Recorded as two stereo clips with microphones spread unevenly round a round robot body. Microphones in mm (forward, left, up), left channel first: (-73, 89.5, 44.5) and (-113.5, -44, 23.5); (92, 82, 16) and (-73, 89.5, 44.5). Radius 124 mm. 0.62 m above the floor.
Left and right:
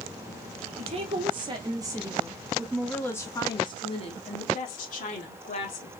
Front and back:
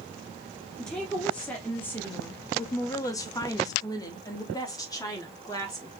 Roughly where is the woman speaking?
Right.